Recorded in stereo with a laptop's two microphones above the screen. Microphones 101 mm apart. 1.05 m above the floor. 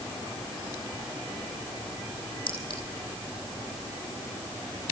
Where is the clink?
55° left (ahead or behind), 5.5 m.